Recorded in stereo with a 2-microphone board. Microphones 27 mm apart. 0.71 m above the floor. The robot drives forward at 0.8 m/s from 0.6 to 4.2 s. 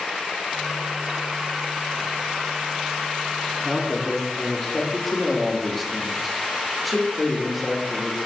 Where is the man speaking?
5° left (ahead or behind), 1.7 m.